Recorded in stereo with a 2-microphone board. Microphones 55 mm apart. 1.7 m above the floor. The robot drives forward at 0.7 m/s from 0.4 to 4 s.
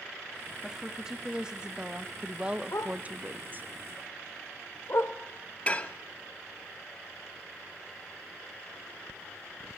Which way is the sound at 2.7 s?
60° left (ahead or behind).